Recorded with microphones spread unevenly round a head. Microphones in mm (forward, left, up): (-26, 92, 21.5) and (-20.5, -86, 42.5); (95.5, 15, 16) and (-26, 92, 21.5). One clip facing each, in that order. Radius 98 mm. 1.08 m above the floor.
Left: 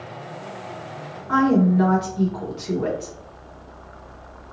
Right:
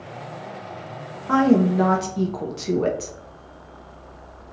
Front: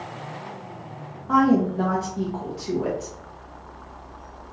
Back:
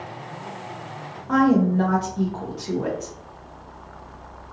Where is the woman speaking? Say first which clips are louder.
Right 1 dB, back 1 dB; 115° right, 0.7 m.